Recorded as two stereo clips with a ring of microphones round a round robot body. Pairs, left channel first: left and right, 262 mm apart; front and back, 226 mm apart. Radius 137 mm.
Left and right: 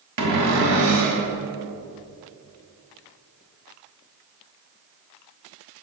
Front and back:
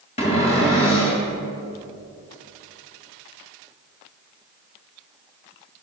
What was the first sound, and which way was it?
A cupboard door, 70° right.